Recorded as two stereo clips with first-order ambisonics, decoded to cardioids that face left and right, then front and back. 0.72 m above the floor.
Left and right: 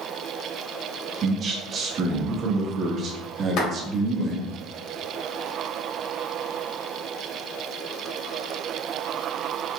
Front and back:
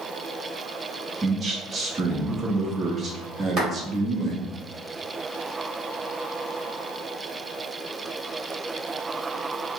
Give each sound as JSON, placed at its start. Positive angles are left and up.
{"t": 1.2, "sound": "a man speaking", "azimuth_deg": -125, "distance_m": 0.9}
{"t": 3.6, "sound": "a clap", "azimuth_deg": 120, "distance_m": 2.0}